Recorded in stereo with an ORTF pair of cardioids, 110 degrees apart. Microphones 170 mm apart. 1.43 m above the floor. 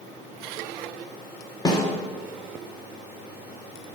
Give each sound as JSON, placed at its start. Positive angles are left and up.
{"t": 1.6, "sound": "a snare drum", "azimuth_deg": 25, "distance_m": 1.4}